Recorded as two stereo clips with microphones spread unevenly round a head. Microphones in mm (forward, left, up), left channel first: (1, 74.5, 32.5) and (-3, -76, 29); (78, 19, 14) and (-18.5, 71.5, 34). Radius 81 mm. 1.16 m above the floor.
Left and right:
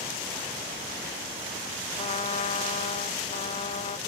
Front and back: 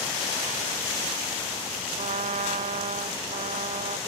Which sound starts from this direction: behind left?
A trumpet, at 2.0 s.